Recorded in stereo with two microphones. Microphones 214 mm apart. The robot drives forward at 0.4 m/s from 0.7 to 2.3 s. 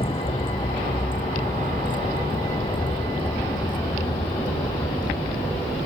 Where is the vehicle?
25° left (ahead or behind); by 5.9 s 20° left (ahead or behind).